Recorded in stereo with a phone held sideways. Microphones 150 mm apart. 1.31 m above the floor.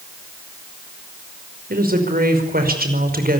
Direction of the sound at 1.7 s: 85° right.